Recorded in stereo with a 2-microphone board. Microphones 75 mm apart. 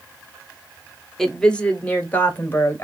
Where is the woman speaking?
5° left (ahead or behind), 0.9 m; by 2.8 s 30° left (ahead or behind), 1.7 m.